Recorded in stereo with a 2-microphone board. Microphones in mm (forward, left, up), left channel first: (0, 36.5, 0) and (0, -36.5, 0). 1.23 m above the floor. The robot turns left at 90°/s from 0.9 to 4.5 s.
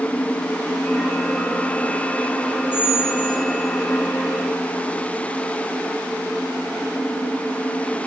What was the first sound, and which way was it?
A squeak, 120° right.